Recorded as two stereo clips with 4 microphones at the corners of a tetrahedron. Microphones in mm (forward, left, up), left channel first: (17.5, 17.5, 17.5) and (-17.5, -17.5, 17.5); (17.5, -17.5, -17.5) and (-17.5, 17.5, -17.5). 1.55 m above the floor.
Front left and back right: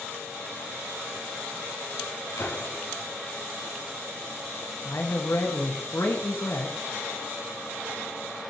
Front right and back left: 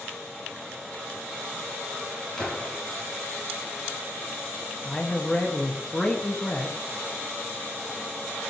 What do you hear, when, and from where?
2.4 s a gunshot: 30° left, 5.5 m
4.8 s a man speaking: 25° left, 1.8 m